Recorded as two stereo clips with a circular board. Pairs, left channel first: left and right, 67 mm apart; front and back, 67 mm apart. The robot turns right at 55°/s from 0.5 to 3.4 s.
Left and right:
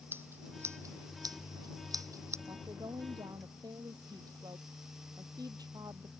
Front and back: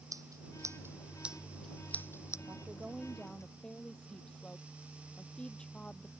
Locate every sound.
0.1 s scissors: 145° right; by 2.4 s 45° right
2.5 s a woman speaking: 125° right; by 6.1 s 75° right